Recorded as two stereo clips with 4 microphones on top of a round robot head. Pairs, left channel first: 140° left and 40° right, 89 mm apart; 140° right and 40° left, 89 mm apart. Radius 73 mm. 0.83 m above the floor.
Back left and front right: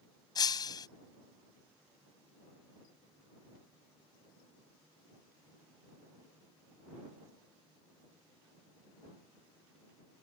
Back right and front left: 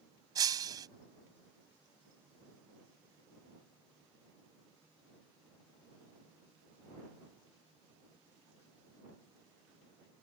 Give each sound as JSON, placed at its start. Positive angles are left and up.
{"t": 0.3, "sound": "breaking glass", "azimuth_deg": 90}